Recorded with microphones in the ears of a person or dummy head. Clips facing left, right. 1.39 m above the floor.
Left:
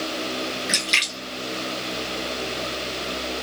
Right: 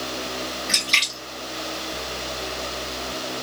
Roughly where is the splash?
Centre.